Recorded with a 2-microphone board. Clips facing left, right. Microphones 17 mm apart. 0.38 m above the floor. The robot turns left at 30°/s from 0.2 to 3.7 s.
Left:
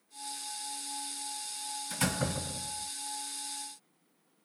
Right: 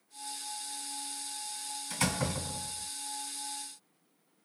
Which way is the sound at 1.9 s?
15° right (ahead or behind).